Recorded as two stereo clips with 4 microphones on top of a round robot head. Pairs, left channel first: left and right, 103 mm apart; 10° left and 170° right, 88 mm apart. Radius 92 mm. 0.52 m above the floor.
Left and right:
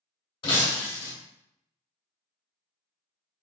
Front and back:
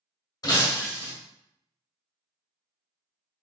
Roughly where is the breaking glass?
Ahead left.